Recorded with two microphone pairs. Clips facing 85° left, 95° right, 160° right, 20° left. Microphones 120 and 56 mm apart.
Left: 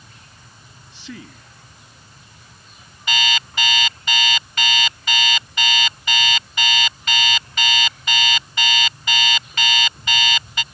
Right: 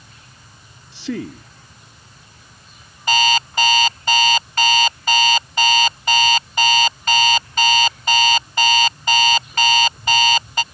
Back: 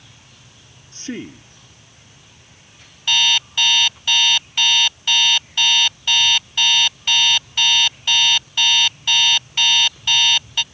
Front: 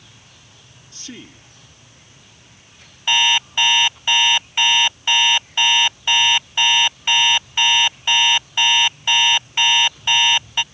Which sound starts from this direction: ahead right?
An alarm clock, at 3.1 s.